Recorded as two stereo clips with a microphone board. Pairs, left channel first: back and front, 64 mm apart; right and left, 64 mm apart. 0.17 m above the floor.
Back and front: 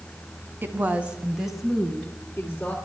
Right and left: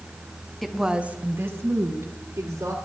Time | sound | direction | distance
0.6 | a woman speaking | 5° right | 1.2 m